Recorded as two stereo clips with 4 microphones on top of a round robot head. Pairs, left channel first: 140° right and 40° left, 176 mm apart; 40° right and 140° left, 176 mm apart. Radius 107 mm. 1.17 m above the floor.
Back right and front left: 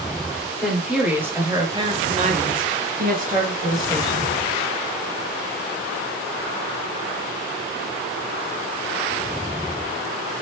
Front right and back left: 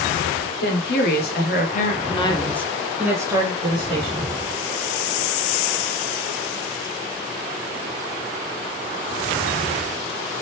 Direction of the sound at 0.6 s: 50° right.